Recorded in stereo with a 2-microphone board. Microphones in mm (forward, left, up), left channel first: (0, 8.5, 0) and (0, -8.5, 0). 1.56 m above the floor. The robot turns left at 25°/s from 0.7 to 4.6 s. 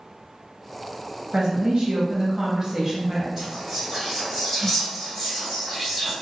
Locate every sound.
1.3 s a woman speaking: 110° right, 1.0 m; by 3.3 s 155° right, 1.0 m
3.4 s whispering: 20° right (ahead or behind), 1.5 m; by 6.1 s 10° left (ahead or behind), 1.5 m